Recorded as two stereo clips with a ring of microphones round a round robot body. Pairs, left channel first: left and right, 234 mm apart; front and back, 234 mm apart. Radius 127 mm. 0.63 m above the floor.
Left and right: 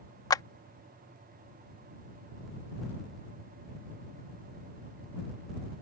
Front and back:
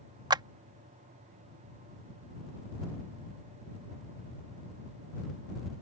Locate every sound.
0.3 s a clap: 140° left